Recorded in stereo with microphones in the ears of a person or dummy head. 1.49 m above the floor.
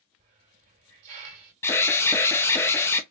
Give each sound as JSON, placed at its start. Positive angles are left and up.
{"t": 0.2, "sound": "a hiss", "side_deg": -35, "distance_m": 2.0}
{"t": 1.6, "sound": "an alarm", "side_deg": 10, "distance_m": 0.8}